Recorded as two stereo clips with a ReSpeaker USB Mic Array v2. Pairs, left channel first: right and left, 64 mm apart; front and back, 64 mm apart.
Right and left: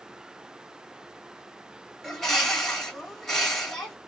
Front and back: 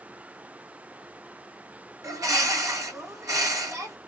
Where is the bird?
175° right, 1.9 m.